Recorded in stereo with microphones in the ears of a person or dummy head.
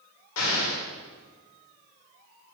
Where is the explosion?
80° left, 1.5 m.